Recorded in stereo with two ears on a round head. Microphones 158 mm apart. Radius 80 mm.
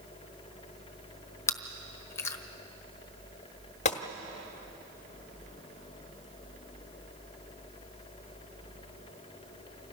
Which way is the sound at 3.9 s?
40° left (ahead or behind).